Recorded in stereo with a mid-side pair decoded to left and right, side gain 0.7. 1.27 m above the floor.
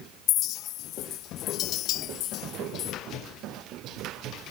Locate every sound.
0.3 s a clink: 55° left